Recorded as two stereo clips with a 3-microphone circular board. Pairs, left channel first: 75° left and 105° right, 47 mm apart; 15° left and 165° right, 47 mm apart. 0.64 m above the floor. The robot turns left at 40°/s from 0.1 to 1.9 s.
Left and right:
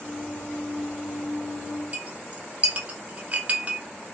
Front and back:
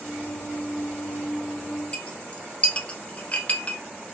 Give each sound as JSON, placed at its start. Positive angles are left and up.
{"t": 1.9, "sound": "a clink", "azimuth_deg": -45, "distance_m": 0.6}